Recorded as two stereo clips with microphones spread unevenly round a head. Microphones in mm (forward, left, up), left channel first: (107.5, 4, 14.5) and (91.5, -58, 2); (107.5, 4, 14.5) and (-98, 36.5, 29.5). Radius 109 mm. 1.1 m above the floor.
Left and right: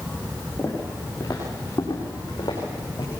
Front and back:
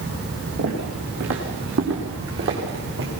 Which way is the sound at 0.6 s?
160° left.